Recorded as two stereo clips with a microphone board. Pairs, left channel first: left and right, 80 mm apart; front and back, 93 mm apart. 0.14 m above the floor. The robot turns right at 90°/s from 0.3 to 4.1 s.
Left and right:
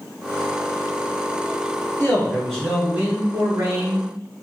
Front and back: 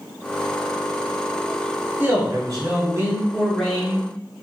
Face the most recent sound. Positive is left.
turn(degrees=-45)